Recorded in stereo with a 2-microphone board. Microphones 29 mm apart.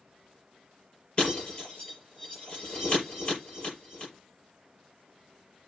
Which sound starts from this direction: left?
Breaking glass, at 1.2 s.